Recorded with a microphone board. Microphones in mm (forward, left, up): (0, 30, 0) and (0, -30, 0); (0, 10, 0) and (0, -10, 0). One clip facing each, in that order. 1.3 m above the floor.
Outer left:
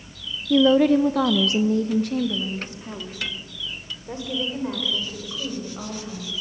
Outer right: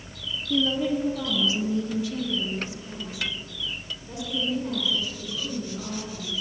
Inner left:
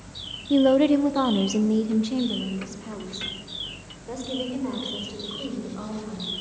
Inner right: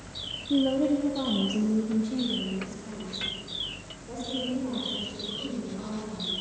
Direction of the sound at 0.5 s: 35° left (ahead or behind).